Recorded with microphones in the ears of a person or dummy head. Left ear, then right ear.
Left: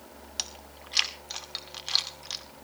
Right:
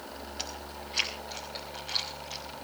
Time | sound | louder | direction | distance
0.4 | chewing | left 4 dB | 40° left (ahead or behind) | 2.5 m